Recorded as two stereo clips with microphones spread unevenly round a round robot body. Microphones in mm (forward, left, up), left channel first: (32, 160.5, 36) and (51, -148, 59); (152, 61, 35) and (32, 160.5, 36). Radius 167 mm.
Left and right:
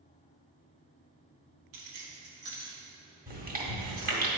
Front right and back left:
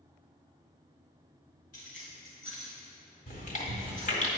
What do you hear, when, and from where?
1.7 s keys jangling: 75° right, 1.2 m; by 4.2 s 105° right, 3.5 m
3.3 s chewing: 25° right, 1.7 m